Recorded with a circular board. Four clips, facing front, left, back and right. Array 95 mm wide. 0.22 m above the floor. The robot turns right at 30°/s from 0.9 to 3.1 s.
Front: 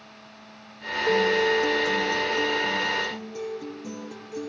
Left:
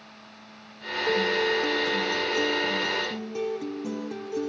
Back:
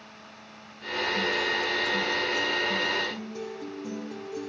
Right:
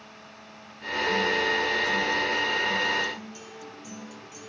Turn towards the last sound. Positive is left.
turn(degrees=85)